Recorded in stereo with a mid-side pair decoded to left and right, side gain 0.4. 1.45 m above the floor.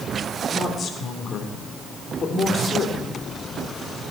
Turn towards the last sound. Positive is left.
turn(degrees=55)